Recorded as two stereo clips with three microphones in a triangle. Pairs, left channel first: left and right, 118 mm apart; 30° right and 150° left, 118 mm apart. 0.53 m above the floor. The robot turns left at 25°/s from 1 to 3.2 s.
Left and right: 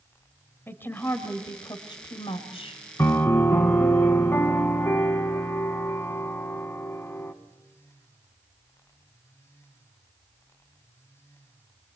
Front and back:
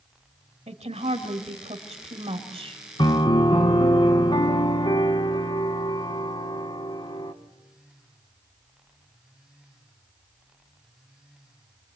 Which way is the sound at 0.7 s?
160° left.